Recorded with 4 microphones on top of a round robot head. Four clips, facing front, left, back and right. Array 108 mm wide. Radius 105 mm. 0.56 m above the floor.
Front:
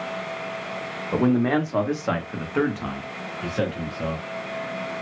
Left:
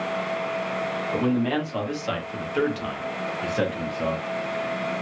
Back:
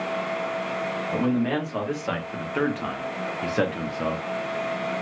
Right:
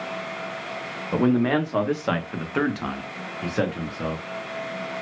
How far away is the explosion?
I don't hear an explosion.